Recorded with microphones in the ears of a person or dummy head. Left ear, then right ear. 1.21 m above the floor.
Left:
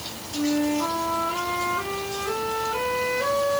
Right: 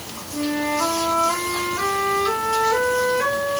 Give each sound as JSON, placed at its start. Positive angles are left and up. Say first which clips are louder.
{"t": 0.3, "sound": "a flute", "louder": "right 2 dB", "side_deg": -70, "distance_m": 3.0}